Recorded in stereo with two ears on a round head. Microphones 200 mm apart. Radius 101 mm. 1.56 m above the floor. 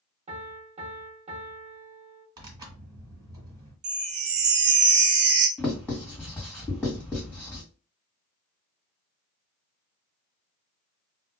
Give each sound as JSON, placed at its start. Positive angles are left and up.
{"t": 0.3, "sound": "a piano", "side_deg": -30, "distance_m": 0.8}
{"t": 2.4, "sound": "tearing paper", "side_deg": -20, "distance_m": 1.8}
{"t": 3.8, "sound": "a chime", "side_deg": -30, "distance_m": 0.7}
{"t": 5.6, "sound": "writing", "side_deg": 10, "distance_m": 1.7}